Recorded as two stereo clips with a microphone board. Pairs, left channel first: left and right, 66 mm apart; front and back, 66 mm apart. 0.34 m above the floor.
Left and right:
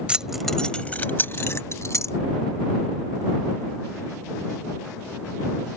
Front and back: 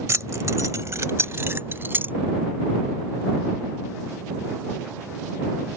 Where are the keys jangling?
160° right; by 2.1 s 125° left.